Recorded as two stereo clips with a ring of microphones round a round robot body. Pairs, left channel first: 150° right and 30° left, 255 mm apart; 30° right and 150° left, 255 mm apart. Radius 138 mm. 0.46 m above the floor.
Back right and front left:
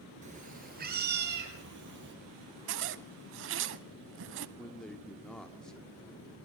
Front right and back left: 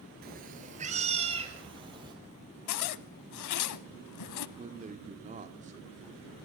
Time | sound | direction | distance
0.2 | a cat meowing | 95° left | 2 m
2.7 | a zipper | 10° right | 0.5 m
4.6 | a man speaking | 125° left | 1.1 m